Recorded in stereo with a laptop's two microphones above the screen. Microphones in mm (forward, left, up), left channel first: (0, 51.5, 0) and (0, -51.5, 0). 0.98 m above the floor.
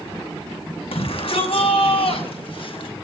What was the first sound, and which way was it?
A shout, 65° left (ahead or behind).